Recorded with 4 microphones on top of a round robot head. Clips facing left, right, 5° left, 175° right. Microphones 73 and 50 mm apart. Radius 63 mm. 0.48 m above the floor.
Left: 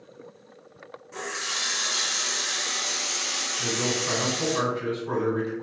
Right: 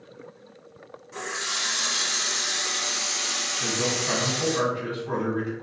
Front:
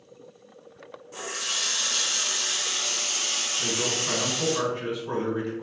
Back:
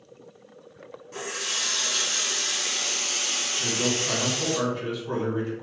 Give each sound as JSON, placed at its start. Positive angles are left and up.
{"t": 1.1, "sound": "a running tap", "azimuth_deg": 180, "distance_m": 0.8}
{"t": 3.6, "sound": "a man speaking", "azimuth_deg": 55, "distance_m": 2.0}